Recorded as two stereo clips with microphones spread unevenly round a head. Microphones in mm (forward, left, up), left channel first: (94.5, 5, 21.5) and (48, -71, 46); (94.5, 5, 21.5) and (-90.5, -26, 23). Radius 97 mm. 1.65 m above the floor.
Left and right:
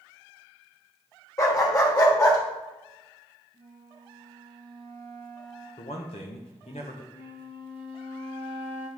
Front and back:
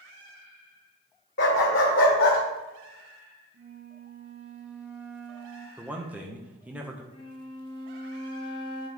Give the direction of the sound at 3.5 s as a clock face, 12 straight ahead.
5 o'clock.